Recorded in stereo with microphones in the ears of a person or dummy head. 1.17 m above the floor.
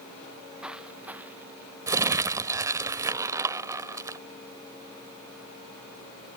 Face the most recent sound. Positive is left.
turn(degrees=-15)  # may be behind; listen again after turning